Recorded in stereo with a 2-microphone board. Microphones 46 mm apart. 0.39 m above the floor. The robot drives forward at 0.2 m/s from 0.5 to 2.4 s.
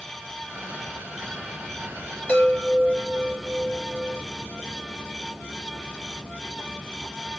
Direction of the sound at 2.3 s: 30° left (ahead or behind).